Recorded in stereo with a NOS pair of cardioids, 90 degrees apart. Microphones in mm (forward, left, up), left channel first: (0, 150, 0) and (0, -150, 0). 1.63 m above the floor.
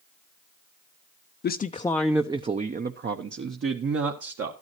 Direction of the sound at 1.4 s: 40° left.